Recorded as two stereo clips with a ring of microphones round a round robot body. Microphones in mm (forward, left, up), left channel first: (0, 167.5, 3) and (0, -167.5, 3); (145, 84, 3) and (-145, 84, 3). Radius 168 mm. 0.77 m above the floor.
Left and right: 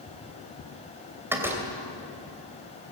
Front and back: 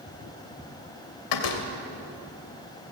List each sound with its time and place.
1.3 s a door slam: 5° right, 2.5 m